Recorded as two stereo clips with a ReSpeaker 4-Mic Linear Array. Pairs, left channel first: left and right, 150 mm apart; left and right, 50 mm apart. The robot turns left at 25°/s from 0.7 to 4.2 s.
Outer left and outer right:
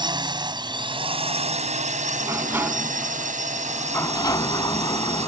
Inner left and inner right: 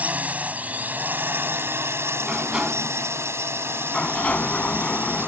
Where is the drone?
35° right; by 5.3 s 120° right.